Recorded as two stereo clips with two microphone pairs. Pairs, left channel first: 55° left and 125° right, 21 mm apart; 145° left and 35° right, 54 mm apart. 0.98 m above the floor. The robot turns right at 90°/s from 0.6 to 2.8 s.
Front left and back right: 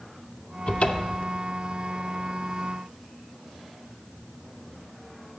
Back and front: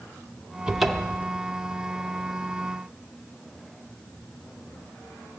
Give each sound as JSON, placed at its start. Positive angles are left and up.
{"t": 0.7, "sound": "a cupboard door", "azimuth_deg": 40, "distance_m": 0.7}